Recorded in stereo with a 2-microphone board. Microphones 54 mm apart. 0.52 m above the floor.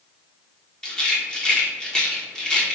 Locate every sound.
0.8 s a rattle: 15° left (ahead or behind), 1.1 m